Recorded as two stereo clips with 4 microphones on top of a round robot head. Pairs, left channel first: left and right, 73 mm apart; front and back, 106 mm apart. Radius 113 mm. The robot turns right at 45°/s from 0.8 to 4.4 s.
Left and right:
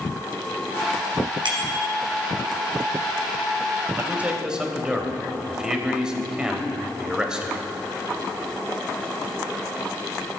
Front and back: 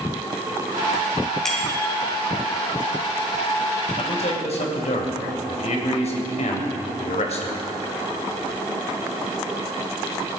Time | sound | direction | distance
1.4 | a bicycle bell | 85° right | 3.5 m
4.0 | a man speaking | 30° right | 3 m